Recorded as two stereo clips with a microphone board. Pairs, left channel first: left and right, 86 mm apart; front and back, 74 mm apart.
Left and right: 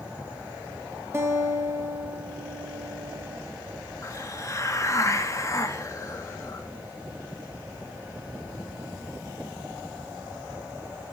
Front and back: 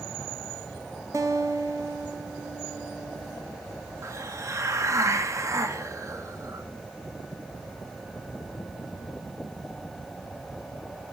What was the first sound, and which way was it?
A guitar, 140° right.